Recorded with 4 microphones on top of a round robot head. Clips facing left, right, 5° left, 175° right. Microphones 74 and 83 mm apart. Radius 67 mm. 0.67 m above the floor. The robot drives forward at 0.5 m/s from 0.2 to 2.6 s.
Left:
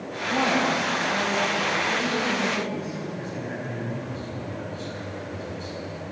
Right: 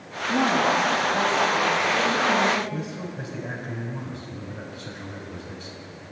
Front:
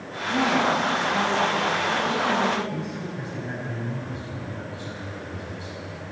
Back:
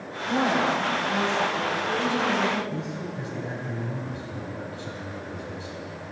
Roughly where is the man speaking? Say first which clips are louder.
Left 1 dB, front 1 dB; behind right.